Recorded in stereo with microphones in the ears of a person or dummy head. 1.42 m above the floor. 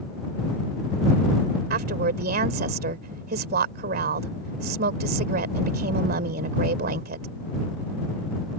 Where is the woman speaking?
60° right (ahead or behind).